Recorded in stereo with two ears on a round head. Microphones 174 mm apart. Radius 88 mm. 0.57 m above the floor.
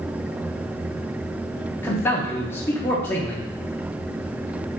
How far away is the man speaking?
About 0.6 m.